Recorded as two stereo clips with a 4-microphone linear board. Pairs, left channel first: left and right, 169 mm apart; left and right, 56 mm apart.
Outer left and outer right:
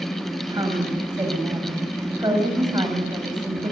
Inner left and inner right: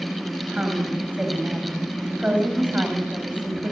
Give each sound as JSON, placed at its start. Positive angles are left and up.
{"t": 0.5, "sound": "a woman speaking", "side_deg": -25, "distance_m": 5.5}